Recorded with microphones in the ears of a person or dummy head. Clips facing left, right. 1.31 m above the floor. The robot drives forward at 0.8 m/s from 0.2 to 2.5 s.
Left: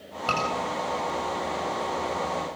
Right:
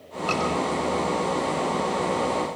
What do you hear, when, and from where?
0.3 s a scream: 15° left (ahead or behind), 7.5 m